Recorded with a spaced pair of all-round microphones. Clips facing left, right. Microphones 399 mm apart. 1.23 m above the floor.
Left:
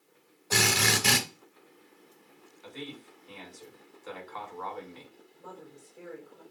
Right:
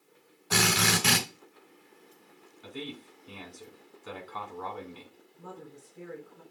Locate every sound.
0.5 s a drill: 25° right (ahead or behind), 3.5 m
2.6 s a man speaking: 45° right (ahead or behind), 2.0 m
5.4 s a woman speaking: 45° right (ahead or behind), 2 m